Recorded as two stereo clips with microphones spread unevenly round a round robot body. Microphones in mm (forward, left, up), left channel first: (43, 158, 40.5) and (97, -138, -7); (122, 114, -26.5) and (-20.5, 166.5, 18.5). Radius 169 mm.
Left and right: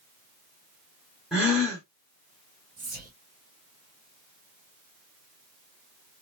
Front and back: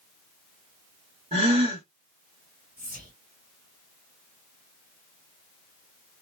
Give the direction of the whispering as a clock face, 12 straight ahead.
5 o'clock.